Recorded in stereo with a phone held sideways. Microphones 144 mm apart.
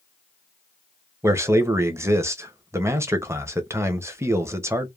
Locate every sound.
1.2 s a man speaking: 15° right (ahead or behind), 0.6 m